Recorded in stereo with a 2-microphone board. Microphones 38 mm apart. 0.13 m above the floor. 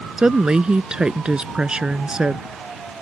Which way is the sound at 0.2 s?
25° right (ahead or behind).